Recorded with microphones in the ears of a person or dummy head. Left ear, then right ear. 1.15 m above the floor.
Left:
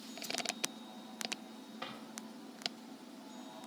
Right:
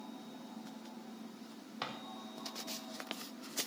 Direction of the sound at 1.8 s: 75° right (ahead or behind).